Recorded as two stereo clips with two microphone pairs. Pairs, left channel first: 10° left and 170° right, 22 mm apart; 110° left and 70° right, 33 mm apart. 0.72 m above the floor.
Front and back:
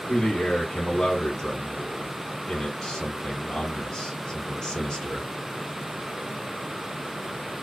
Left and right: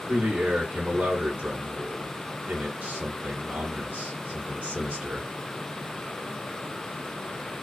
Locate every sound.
0.1 s a man speaking: 45° right, 4 m